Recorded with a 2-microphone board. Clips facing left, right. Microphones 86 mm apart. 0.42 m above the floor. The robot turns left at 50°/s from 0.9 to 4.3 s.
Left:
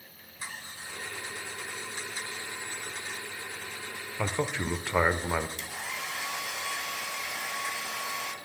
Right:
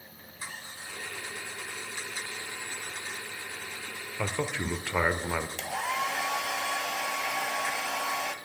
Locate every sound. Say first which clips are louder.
4.2 s a man speaking: left 1 dB; 15° left (ahead or behind), 1.0 m
5.6 s a hair dryer: right 8 dB; 80° right, 0.9 m